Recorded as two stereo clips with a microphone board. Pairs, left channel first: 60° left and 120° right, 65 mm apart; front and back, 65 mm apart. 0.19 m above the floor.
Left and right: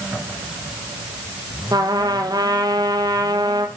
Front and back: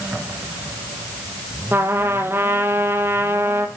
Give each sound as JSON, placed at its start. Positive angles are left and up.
{"t": 1.7, "sound": "a trumpet", "azimuth_deg": -125, "distance_m": 1.4}